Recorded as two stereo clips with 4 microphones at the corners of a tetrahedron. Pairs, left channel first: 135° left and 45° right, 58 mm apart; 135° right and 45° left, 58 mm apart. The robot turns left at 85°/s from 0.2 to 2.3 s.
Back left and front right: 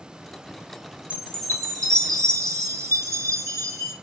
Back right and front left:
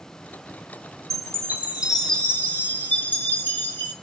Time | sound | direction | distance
1.1 | a chime | 25° left | 1.3 m